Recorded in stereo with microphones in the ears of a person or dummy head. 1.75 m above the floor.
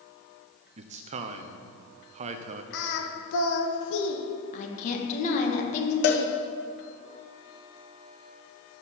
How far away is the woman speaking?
About 1.5 m.